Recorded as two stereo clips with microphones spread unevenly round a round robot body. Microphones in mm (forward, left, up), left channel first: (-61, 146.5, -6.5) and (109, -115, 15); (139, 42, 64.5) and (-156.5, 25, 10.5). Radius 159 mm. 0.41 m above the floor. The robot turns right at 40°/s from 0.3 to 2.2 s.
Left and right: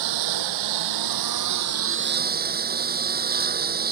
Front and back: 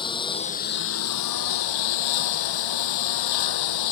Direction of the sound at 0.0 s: 70° right.